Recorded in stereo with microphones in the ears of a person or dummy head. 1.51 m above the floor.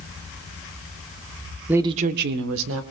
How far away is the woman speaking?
About 0.7 m.